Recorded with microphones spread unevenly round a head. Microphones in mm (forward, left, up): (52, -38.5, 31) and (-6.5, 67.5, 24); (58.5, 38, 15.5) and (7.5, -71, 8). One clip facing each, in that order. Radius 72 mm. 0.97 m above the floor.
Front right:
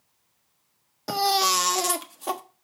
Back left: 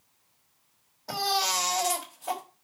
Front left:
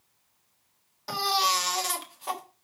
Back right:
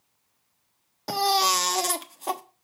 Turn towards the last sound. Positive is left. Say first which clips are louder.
# front right 6 dB, back right 4 dB
turn(degrees=-75)